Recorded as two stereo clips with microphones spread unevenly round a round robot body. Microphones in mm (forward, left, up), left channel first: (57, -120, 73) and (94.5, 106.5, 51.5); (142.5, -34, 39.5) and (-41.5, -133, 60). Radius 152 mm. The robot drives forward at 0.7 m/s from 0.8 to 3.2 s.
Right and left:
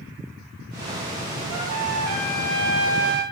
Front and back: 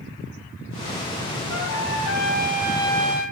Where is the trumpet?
75° left, 2.5 m; by 3.2 s 105° left, 2.5 m.